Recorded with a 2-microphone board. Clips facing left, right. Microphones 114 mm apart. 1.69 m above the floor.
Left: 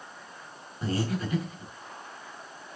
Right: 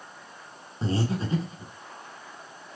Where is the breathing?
30° right (ahead or behind), 2 m.